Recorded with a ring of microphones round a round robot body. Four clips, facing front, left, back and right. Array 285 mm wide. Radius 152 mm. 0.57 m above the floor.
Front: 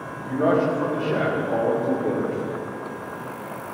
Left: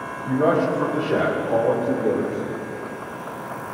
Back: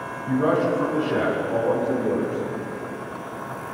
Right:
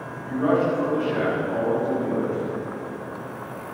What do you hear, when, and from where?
0.2 s a man speaking: 55° left, 4.5 m; by 2.4 s 75° left, 3.5 m